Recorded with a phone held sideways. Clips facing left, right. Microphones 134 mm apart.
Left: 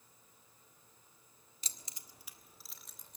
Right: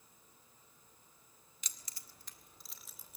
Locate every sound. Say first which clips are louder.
1.6 s keys jangling: left 2 dB; 35° left (ahead or behind), 1.2 m; by 3.2 s 5° right (ahead or behind), 2.5 m